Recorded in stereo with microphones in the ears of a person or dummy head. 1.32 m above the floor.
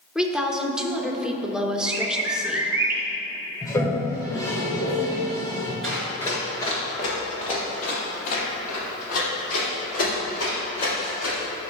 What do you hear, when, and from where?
0.1 s a woman speaking: 5° right (ahead or behind), 0.8 m
1.9 s a bird: 15° right (ahead or behind), 1.0 m
3.6 s a toilet flushing: 20° left (ahead or behind), 1.4 m
5.8 s running footsteps: 5° left (ahead or behind), 1.3 m; by 11.4 s 60° left (ahead or behind), 6 m